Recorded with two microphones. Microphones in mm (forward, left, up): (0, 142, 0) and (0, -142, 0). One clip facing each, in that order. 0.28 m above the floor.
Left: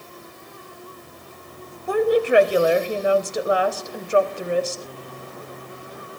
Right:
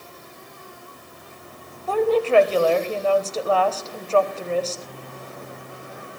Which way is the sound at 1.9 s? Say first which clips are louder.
Left 1 dB; 15° left (ahead or behind).